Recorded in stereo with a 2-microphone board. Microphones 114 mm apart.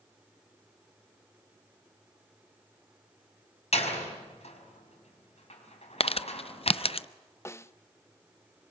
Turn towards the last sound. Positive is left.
turn(degrees=25)  # may be behind; listen again after turning